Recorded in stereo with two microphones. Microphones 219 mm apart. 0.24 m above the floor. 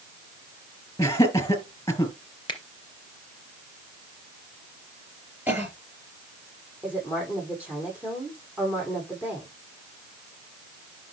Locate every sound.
1.0 s laughter: 15° left (ahead or behind), 4 m
2.5 s a finger snap: 25° left (ahead or behind), 2.5 m
5.5 s a cough: 10° right (ahead or behind), 6 m
6.8 s a woman speaking: 5° right (ahead or behind), 8.5 m